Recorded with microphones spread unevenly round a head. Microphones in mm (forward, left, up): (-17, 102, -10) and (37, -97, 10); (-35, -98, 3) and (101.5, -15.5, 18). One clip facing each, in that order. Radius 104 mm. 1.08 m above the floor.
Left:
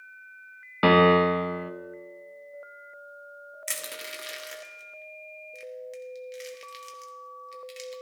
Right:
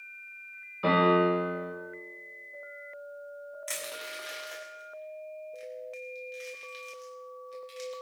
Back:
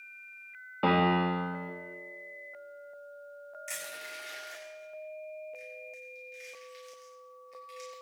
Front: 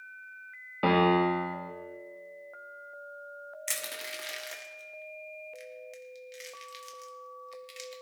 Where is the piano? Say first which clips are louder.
Left 5 dB, front 3 dB; 120° left, 1.1 m.